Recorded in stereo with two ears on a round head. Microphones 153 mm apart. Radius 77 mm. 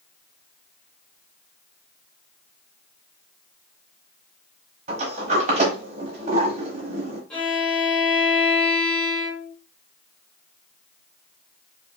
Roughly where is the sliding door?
Right.